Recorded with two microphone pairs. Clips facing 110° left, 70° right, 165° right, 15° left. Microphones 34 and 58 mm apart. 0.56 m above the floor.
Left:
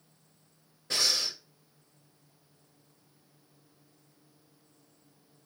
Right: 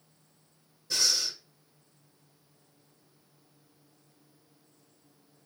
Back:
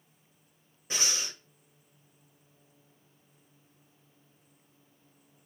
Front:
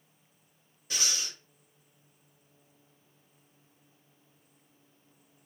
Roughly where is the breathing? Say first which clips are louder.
Even, back 1 dB; behind left.